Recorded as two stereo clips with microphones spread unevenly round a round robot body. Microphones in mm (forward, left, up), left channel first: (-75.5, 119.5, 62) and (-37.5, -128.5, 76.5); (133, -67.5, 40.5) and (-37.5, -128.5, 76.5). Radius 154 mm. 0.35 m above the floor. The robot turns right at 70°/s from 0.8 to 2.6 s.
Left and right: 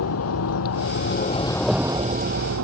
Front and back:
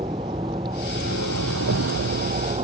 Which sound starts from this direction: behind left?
A vehicle, at 0.0 s.